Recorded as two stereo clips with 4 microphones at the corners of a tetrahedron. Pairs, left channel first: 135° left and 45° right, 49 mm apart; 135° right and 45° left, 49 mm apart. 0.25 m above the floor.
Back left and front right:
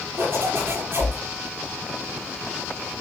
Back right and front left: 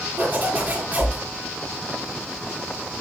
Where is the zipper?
15° right, 4 m.